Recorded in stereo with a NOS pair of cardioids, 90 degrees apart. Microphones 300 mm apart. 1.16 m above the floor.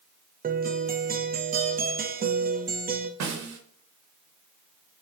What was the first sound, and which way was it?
A guitar, 30° right.